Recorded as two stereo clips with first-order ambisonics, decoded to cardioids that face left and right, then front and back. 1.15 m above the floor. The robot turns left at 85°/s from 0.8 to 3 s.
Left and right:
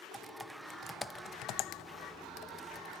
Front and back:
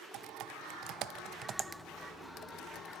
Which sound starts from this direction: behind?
Typing on a keyboard, at 0.1 s.